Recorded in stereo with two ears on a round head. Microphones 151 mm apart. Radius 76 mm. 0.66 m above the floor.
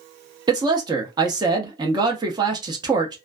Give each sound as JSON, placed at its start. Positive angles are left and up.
{"t": 0.5, "sound": "a man speaking", "side_deg": -25, "distance_m": 0.5}